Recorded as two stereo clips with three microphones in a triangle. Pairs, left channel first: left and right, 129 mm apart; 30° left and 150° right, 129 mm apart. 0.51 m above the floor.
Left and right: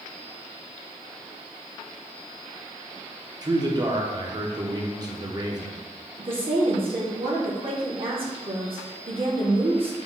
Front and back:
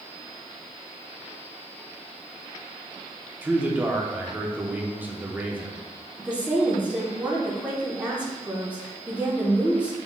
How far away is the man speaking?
About 0.7 m.